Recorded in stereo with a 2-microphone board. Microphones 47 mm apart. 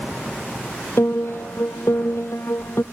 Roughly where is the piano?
Left.